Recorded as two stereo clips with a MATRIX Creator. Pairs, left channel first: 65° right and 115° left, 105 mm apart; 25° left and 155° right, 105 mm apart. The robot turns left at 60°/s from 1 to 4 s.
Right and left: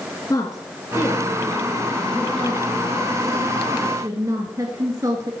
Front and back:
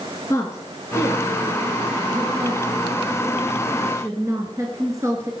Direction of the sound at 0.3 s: 25° right.